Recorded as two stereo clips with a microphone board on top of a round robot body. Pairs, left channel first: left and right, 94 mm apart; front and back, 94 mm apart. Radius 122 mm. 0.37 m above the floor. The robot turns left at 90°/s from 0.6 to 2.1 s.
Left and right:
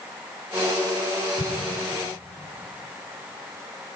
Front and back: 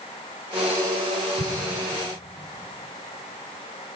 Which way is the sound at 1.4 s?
30° left.